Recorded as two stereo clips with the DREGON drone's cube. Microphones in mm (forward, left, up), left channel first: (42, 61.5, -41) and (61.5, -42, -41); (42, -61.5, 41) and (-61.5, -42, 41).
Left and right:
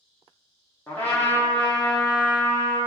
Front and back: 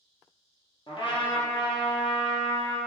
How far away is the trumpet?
About 1.3 m.